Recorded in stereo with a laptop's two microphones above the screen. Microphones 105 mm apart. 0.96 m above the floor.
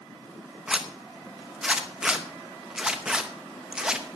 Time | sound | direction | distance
0.7 | a zipper | 10° right (ahead or behind) | 0.7 m